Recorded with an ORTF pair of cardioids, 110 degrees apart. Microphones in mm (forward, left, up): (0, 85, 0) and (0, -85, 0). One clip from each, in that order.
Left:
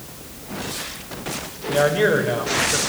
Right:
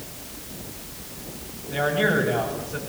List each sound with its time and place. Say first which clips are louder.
1.7 s a man speaking: left 5 dB; 65° left, 7 m